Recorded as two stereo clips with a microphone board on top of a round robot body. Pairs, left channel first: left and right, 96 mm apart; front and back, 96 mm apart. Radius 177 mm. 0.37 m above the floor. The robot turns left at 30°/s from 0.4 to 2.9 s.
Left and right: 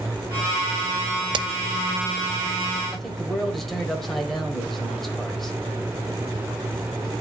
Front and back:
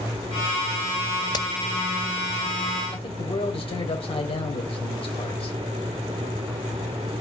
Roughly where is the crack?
Ahead right.